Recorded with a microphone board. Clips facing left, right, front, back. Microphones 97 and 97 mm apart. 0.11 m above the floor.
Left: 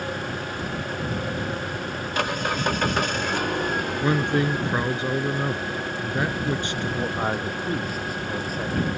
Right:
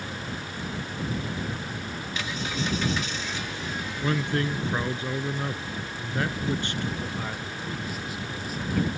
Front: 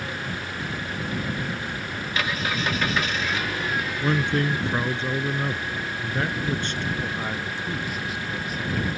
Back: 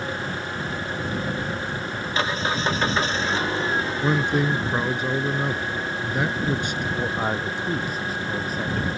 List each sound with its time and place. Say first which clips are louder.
0.0 s an engine running: left 6 dB, back 3 dB; 120° left
4.0 s a man speaking: left 4 dB, back 1 dB; 120° left
6.9 s a man speaking: left 8 dB, back 4 dB; 130° left